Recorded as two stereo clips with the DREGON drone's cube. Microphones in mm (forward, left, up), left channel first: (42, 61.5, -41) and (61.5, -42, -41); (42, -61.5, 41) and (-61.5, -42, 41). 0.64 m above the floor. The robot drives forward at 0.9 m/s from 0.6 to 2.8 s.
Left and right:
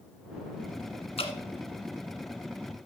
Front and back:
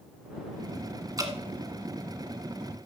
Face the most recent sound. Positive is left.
turn(degrees=150)